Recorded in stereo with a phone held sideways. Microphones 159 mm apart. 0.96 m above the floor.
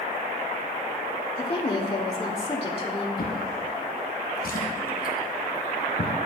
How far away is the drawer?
About 1.9 m.